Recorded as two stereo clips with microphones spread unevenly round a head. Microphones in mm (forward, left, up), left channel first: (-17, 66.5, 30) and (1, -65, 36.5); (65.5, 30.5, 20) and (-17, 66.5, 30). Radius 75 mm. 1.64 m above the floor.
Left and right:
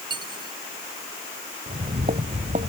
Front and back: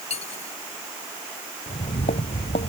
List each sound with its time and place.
0.1 s cutlery clinking: 20° right
1.7 s footsteps: 35° right